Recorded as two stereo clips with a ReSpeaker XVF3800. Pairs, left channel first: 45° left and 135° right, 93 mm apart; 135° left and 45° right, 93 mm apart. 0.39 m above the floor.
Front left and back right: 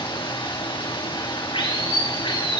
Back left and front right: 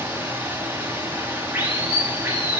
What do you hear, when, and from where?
0.0 s running water: 25° left, 9.5 m